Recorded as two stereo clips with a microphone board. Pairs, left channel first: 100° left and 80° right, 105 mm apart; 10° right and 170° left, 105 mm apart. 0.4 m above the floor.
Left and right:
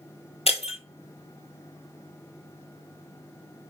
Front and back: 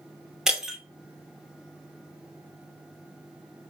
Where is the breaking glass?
85° left, 0.9 m.